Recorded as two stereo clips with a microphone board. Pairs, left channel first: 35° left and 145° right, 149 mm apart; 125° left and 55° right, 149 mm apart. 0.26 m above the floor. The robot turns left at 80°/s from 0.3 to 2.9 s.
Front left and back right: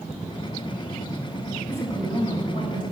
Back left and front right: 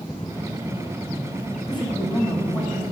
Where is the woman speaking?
100° left, 1.4 m; by 2.8 s 5° left, 1.4 m.